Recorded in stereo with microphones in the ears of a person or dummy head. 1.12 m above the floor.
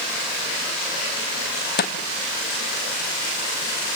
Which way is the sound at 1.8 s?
55° left (ahead or behind).